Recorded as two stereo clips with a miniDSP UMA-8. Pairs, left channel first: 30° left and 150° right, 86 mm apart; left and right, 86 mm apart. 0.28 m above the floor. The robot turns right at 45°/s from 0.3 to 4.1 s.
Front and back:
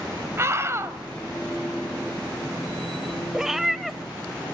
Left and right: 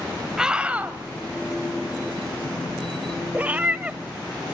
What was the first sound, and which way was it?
A scream, 165° right.